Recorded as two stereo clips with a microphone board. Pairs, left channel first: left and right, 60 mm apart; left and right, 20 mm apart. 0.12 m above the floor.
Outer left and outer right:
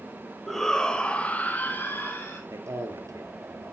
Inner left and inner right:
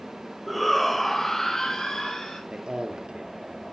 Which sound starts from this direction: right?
A man speaking, at 2.5 s.